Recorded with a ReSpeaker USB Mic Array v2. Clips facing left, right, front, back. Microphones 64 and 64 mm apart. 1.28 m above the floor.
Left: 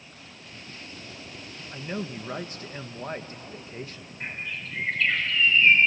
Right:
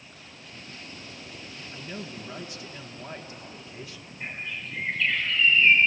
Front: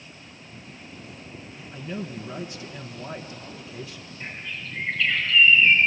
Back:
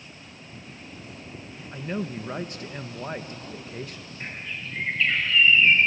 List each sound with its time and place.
1.7 s a man speaking: 140° left, 1.2 m
4.2 s a bird: 125° left, 5 m